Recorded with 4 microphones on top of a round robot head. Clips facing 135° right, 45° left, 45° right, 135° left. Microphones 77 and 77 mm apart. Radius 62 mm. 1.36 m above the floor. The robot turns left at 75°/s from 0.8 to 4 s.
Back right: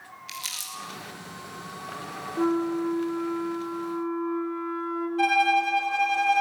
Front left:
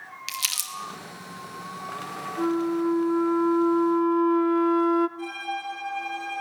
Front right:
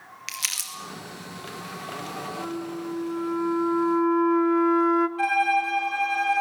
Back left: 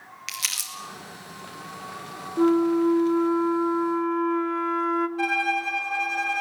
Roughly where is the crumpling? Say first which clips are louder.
Front left 4 dB, back left 1 dB; ahead left.